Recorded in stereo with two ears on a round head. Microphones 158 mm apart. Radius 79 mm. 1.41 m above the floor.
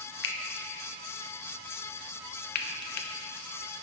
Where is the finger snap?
75° left (ahead or behind), 0.8 m.